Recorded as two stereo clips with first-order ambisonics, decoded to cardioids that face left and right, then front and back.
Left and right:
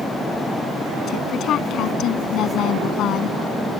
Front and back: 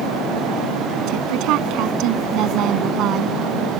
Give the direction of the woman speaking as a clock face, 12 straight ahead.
7 o'clock.